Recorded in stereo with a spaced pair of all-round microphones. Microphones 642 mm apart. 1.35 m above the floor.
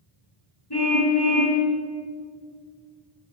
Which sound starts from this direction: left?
A car horn, at 0.7 s.